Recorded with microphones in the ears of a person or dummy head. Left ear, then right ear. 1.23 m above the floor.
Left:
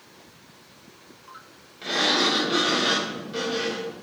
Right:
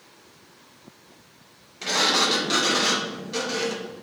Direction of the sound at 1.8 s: 75° right (ahead or behind).